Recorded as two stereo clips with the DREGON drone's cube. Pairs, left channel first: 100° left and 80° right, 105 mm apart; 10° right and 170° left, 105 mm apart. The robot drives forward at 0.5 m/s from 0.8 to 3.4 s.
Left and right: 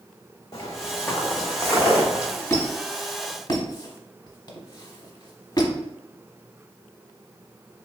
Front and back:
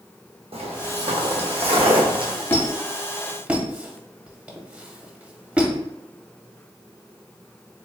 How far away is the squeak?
About 0.7 m.